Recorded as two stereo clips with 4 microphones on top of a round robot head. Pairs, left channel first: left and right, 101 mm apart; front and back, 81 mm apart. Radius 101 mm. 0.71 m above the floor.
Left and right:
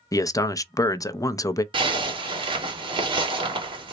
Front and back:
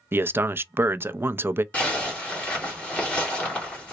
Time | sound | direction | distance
0.1 | a man speaking | 130° left | 0.5 m
1.7 | a zipper | 75° right | 1.7 m